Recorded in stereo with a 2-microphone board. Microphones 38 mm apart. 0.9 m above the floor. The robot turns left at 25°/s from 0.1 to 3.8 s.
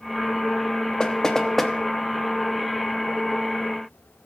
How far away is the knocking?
About 0.9 m.